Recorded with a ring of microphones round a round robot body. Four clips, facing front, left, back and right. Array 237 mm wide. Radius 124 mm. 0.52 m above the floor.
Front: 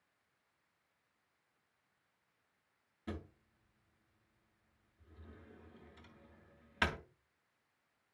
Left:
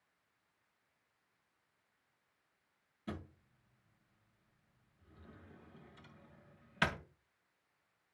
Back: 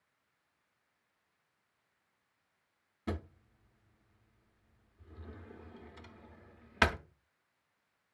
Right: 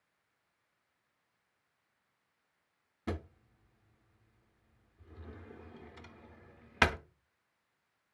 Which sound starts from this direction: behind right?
A drawer, at 3.1 s.